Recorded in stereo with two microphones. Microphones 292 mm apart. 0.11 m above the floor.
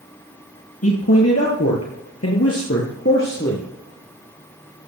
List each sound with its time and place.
0.8 s a man speaking: 55° left (ahead or behind), 2.5 m; by 3.7 s 35° left (ahead or behind), 2 m